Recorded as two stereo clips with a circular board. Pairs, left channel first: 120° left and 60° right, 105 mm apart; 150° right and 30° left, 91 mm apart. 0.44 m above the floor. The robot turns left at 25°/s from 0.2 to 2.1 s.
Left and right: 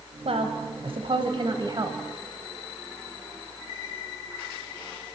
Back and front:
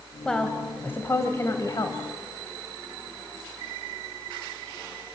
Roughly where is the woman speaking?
Right.